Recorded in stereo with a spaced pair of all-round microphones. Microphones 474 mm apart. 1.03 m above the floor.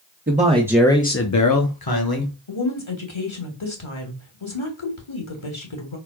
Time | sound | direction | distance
0.3 | a man speaking | 20° right (ahead or behind) | 1.0 m
2.5 | a woman speaking | 75° left (ahead or behind) | 1.4 m